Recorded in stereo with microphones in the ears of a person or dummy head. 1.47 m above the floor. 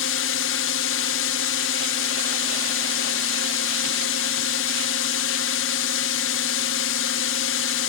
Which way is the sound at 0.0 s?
65° left (ahead or behind).